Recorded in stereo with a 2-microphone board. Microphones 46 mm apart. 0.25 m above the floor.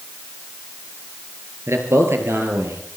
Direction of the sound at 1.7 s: 70° right (ahead or behind).